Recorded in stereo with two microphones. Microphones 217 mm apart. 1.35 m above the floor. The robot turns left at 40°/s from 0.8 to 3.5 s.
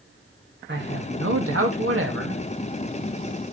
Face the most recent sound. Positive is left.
turn(degrees=-165)